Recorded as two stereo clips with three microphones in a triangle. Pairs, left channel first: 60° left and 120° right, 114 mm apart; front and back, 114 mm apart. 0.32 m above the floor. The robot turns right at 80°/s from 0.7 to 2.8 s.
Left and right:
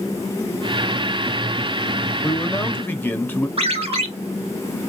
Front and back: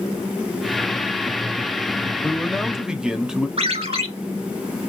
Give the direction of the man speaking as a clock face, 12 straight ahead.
10 o'clock.